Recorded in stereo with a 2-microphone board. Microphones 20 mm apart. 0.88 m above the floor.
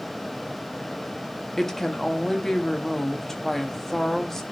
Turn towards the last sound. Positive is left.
turn(degrees=20)  # may be behind; listen again after turning